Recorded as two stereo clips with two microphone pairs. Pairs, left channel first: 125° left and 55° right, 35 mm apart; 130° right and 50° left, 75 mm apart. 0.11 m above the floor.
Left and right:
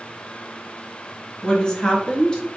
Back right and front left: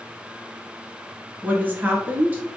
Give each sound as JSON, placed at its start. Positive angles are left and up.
{"t": 1.4, "sound": "a woman speaking", "azimuth_deg": 85, "distance_m": 1.2}